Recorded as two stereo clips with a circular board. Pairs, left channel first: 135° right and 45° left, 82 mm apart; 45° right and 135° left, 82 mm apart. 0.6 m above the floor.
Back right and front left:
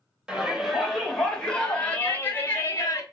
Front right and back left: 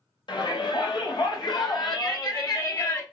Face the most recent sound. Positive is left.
turn(degrees=-85)